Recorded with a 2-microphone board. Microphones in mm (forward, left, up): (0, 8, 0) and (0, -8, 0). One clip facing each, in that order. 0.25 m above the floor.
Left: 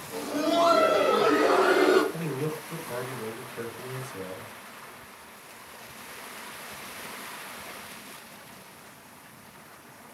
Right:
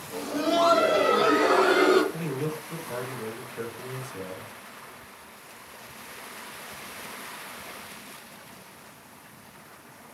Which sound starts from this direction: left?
Laughter, at 0.1 s.